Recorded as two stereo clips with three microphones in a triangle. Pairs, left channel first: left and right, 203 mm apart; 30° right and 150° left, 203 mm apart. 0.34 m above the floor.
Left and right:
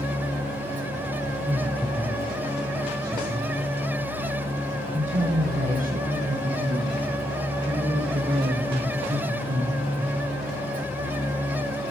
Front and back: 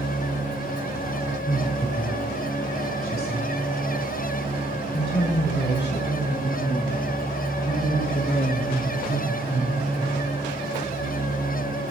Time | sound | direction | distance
1.5 | a woman speaking | 20° left | 1.4 m